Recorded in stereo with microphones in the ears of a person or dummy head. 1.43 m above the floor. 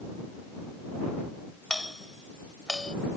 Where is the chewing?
No chewing in this recording.